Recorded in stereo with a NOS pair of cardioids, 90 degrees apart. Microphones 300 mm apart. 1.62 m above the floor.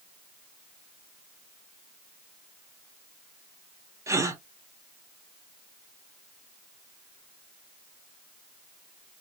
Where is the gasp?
10° right, 0.9 m.